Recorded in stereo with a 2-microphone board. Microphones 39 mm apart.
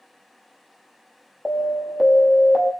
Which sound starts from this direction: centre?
An alarm, at 1.4 s.